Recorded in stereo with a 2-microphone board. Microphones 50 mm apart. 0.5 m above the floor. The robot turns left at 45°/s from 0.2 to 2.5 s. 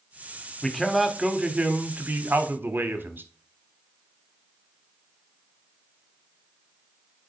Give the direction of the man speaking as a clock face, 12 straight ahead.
12 o'clock.